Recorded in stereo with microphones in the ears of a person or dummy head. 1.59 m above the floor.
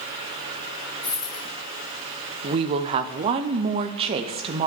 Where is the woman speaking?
30° right (ahead or behind), 0.6 m.